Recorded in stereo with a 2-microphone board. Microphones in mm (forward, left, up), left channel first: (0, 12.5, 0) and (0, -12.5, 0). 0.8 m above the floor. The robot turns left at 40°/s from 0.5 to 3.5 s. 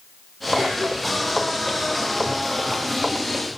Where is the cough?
15° right (ahead or behind), 5.5 m; by 1.4 s 20° left (ahead or behind), 5.5 m.